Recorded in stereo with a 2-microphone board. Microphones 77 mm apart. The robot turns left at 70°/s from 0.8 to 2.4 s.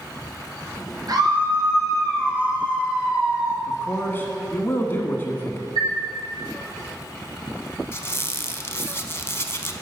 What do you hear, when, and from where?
1.1 s a scream: 65° right, 3.5 m; by 3.6 s 160° right, 3.5 m
3.7 s a man speaking: 30° left (ahead or behind), 1.4 m
5.8 s a chime: 60° right (ahead or behind), 3.5 m
7.9 s a squeak: 35° left (ahead or behind), 0.6 m